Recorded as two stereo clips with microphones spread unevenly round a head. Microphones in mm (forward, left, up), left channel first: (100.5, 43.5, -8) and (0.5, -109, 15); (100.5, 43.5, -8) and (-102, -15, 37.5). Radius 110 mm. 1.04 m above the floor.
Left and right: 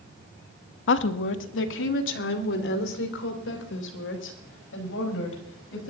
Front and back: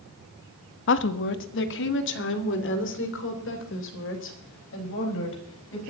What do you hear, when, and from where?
0.9 s a woman speaking: 45° left, 1.0 m